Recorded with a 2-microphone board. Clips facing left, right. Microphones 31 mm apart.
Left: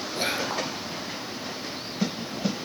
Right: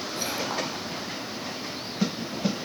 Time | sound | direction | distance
0.1 | whispering | 40° left (ahead or behind) | 1.8 m